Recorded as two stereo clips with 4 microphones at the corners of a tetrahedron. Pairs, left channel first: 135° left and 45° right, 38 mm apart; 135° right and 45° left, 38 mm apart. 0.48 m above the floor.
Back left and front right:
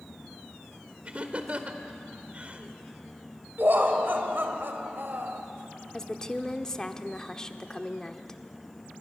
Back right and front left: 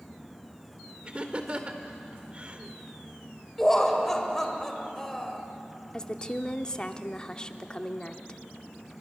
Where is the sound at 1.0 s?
5° right, 1.8 m.